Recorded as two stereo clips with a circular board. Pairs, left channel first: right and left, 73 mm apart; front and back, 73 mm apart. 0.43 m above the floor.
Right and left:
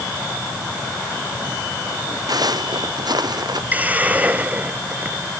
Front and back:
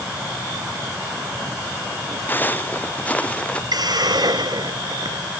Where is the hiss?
160° left.